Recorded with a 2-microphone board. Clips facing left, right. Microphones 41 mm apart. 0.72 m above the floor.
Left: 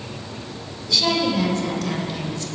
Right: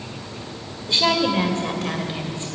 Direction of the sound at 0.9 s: 35° right (ahead or behind).